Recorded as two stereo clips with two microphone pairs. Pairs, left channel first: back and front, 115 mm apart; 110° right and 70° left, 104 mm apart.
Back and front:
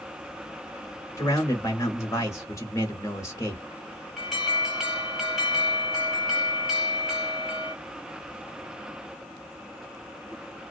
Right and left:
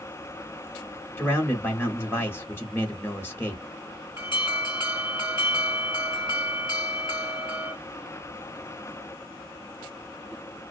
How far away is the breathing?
No breathing in this recording.